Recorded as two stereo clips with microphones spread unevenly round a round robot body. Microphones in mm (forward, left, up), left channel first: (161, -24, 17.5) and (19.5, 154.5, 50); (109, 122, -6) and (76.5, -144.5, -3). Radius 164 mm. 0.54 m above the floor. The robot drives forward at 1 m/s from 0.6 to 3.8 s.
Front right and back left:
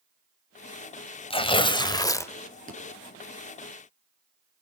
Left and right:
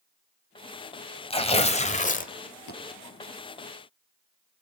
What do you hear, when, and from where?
1.3 s tearing paper: 15° left, 2 m; by 2.3 s 25° left, 1.3 m
2.7 s a thud: 75° left, 6.5 m